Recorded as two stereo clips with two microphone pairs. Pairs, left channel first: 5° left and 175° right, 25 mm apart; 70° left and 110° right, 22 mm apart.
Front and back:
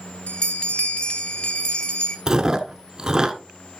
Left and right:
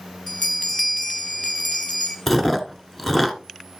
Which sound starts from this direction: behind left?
Chewing, at 2.3 s.